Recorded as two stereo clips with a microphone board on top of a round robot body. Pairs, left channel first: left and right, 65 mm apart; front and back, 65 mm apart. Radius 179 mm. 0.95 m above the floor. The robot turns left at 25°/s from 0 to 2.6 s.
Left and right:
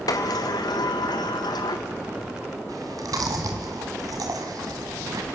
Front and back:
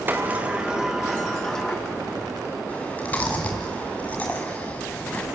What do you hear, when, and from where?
0.1 s a sliding door: 115° left, 1.6 m; by 1.8 s 75° left, 1.6 m
2.7 s chewing: 65° right, 1.1 m